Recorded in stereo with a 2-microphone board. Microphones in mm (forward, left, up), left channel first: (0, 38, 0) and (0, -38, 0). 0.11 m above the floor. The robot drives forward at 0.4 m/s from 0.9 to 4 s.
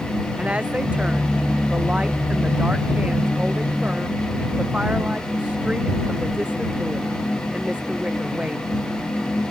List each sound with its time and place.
0.4 s a woman speaking: 15° right (ahead or behind)